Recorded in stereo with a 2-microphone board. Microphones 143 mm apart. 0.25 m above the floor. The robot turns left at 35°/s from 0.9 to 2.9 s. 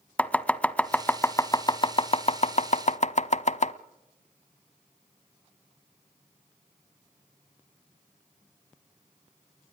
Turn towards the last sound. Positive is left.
turn(degrees=55)  # may be behind; listen again after turning